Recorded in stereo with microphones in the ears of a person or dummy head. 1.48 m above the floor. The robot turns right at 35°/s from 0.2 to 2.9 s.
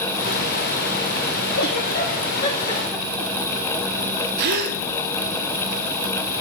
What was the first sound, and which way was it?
A giggle, 70° left (ahead or behind).